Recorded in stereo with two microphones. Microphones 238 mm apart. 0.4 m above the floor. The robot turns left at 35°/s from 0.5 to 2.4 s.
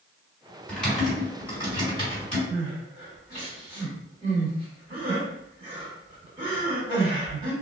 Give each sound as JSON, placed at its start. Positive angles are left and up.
{"t": 0.7, "sound": "typing on a keyboard", "side_deg": 5, "distance_m": 1.7}
{"t": 2.5, "sound": "crying", "side_deg": -20, "distance_m": 1.5}